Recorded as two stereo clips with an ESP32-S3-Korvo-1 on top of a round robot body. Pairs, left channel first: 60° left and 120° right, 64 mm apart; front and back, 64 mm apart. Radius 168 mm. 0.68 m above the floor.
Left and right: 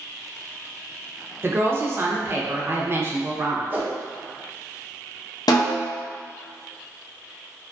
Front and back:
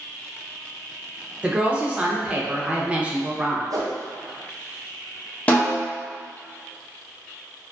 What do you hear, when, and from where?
1.4 s a woman speaking: 120° right, 0.8 m
3.7 s a whoosh: straight behind, 0.6 m
5.5 s a snare drum: 70° left, 0.8 m